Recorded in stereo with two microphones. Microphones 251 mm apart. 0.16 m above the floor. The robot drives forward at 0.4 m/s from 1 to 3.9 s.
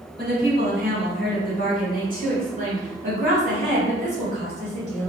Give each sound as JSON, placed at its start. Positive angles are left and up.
{"t": 0.2, "sound": "a woman speaking", "side_deg": -40, "distance_m": 1.7}